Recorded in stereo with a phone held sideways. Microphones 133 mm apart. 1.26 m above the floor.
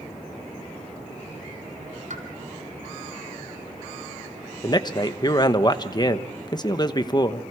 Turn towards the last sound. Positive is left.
turn(degrees=30)  # may be behind; listen again after turning